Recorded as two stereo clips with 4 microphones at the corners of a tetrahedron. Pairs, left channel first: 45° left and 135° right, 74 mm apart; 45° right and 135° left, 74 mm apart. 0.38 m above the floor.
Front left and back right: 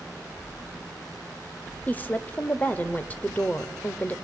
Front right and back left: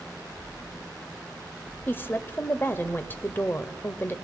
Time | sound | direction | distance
1.9 | a woman speaking | 5° right | 1.2 m